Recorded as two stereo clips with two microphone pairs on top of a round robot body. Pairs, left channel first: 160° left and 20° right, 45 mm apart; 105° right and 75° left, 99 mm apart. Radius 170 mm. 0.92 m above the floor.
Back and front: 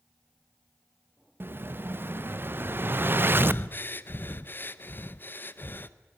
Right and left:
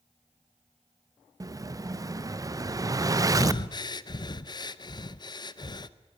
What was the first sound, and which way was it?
An explosion, 20° left.